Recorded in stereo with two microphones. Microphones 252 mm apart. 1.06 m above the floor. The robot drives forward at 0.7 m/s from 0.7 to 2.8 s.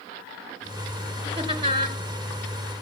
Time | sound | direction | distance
1.4 | laughter | 20° right (ahead or behind) | 3 m